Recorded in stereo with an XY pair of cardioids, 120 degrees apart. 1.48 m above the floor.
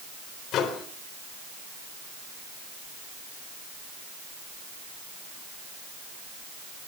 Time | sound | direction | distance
0.5 | a microwave | 65° left | 4 m